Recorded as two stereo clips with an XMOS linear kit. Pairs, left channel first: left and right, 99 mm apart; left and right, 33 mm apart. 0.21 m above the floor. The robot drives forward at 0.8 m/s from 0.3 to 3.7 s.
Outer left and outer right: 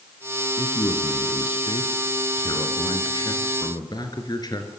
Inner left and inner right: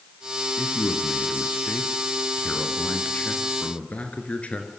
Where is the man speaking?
60° left (ahead or behind), 3 m; by 4.7 s 45° left (ahead or behind), 4 m.